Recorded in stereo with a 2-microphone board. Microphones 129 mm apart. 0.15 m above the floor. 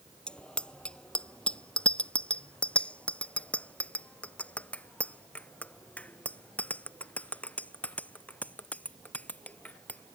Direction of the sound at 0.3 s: 5° left (ahead or behind).